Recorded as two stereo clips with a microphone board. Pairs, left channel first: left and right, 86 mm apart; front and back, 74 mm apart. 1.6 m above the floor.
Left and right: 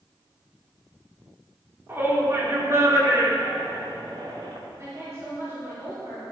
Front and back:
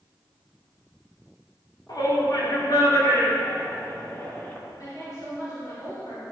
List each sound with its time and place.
1.9 s a shout: 25° right, 4 m; by 4.6 s 65° right, 3 m
4.8 s a woman speaking: 35° right, 5 m